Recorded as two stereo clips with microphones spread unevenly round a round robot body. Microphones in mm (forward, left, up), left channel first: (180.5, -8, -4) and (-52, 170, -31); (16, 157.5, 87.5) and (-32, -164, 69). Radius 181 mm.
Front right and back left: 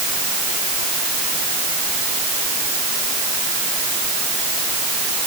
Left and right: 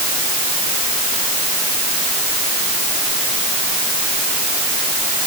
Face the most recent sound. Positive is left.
No sound to turn to.